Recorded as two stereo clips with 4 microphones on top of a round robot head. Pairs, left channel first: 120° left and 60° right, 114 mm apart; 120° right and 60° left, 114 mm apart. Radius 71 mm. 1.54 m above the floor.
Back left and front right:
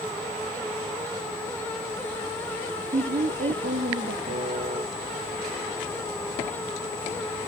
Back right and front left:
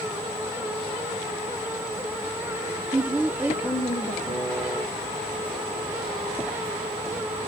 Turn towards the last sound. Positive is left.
turn(degrees=-30)